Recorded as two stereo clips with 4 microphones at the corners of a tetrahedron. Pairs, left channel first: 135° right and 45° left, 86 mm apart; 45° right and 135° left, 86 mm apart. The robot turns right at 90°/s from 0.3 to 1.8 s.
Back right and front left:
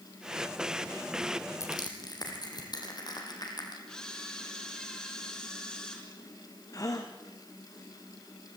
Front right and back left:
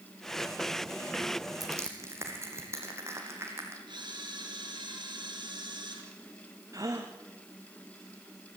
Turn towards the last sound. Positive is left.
turn(degrees=180)